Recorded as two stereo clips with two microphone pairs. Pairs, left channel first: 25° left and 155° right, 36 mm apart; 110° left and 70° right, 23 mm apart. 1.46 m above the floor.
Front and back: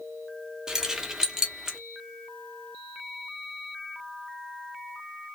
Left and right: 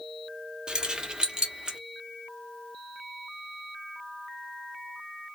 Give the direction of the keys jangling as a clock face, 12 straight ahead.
3 o'clock.